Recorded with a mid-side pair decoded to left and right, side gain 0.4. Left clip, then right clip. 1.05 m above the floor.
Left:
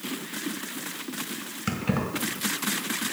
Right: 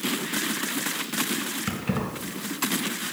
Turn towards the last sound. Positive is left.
turn(degrees=15)